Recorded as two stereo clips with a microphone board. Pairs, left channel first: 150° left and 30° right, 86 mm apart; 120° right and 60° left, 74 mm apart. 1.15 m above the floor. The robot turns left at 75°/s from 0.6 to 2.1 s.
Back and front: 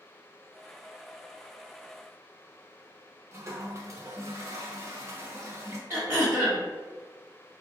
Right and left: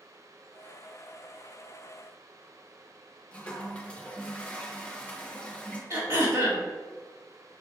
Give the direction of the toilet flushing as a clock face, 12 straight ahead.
2 o'clock.